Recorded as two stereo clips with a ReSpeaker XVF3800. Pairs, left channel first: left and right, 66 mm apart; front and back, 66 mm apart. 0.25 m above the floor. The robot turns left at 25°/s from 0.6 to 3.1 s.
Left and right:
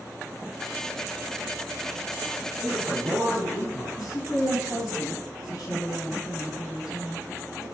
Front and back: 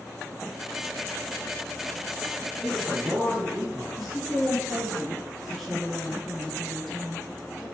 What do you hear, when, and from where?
2.6 s a man speaking: 145° left, 3 m; by 3.9 s 135° left, 3 m
4.0 s a woman speaking: 90° left, 3 m